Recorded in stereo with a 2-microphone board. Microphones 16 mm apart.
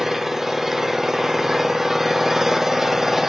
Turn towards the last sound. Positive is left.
turn(degrees=-30)  # may be behind; listen again after turning